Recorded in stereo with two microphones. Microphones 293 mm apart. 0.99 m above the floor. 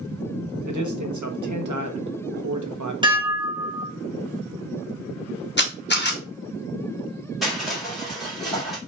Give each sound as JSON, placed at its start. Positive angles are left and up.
{"t": 0.7, "sound": "a man speaking", "side_deg": -80, "distance_m": 0.9}
{"t": 3.0, "sound": "dishes clattering", "side_deg": -15, "distance_m": 1.0}
{"t": 5.6, "sound": "a camera shutter", "side_deg": 35, "distance_m": 0.9}
{"t": 7.4, "sound": "crushing", "side_deg": 0, "distance_m": 2.0}